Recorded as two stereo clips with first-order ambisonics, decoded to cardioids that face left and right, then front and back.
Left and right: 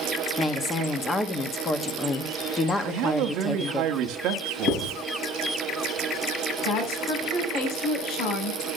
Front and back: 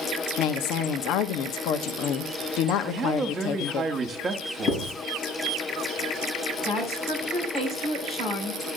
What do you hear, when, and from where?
0.4 s a woman speaking: 15° left, 1.1 m
2.8 s a man speaking: 115° right, 1.3 m
4.7 s writing: 55° left, 4.5 m
6.6 s a woman speaking: 70° left, 7 m